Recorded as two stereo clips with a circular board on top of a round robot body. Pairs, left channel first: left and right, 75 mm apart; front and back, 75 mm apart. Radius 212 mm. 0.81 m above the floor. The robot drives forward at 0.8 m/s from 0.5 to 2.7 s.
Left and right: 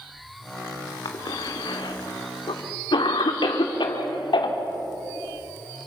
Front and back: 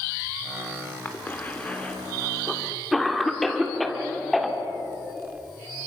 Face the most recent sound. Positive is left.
turn(degrees=90)